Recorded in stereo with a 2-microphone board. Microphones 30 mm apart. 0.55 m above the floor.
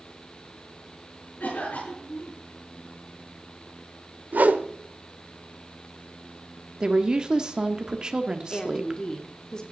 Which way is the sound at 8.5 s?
25° left (ahead or behind).